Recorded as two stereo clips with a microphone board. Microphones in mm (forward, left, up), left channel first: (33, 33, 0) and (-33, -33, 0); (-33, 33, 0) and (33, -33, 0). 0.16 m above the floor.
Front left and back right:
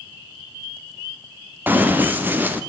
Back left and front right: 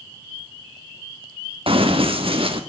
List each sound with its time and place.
1.7 s running footsteps: 65° right, 1.9 m